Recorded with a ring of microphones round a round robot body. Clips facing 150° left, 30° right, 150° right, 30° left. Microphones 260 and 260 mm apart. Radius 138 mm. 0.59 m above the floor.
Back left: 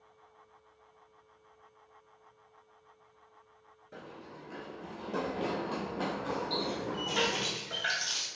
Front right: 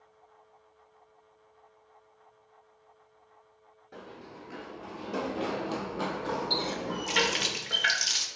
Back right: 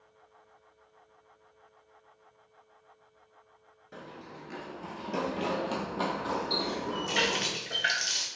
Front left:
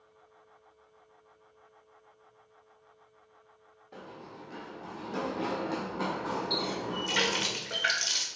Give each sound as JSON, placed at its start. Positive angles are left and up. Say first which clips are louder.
{"t": 3.9, "sound": "running footsteps", "louder": "front right 2 dB, even", "azimuth_deg": -130, "distance_m": 0.5}
{"t": 6.5, "sound": "a running tap", "louder": "front right 1 dB, back right 1 dB", "azimuth_deg": -45, "distance_m": 0.6}